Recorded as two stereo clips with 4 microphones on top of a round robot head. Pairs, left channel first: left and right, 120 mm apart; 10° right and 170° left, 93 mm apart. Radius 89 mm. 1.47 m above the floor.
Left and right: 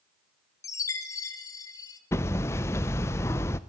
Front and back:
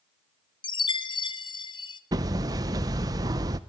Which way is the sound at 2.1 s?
145° left.